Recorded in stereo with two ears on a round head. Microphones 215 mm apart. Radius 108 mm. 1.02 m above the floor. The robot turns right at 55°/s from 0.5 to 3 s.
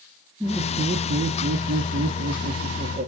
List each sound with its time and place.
0.4 s laughter: 170° right, 0.9 m; by 3.1 s 35° right, 0.9 m